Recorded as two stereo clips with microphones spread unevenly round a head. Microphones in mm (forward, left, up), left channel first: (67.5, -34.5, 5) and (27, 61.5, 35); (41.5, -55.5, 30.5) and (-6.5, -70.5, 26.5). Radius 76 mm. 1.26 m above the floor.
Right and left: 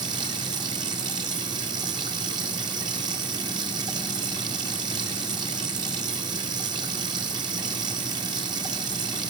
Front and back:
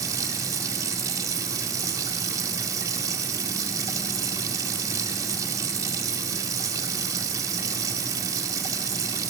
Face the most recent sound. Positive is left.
turn(degrees=170)